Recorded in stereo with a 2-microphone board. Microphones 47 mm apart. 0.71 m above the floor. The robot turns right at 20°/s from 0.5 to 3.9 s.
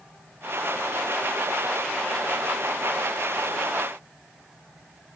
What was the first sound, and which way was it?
Only background noise.